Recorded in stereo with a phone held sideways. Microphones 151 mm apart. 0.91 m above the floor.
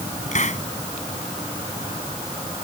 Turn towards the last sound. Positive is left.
turn(degrees=55)  # may be behind; listen again after turning